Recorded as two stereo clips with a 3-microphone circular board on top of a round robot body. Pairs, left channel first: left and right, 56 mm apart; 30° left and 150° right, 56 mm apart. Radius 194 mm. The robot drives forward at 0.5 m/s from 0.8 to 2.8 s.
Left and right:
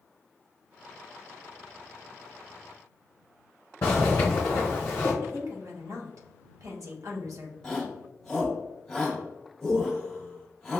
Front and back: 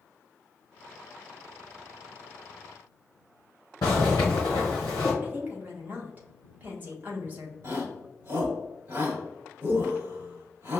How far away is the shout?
About 1.8 m.